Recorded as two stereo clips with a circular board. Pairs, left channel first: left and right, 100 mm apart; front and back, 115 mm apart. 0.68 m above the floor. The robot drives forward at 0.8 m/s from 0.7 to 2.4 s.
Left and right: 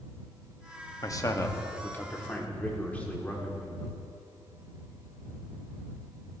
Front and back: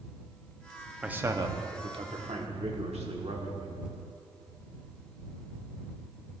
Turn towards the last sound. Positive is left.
turn(degrees=165)